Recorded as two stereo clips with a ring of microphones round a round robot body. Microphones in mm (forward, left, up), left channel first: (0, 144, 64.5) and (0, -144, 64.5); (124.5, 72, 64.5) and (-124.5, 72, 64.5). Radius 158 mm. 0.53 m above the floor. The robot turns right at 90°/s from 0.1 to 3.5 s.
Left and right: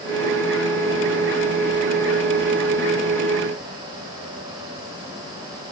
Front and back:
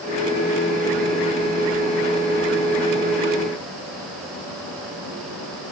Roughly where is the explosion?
No explosion in this recording.